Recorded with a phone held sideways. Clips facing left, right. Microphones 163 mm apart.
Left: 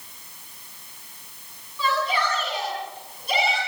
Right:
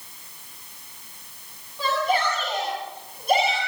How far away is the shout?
About 8 m.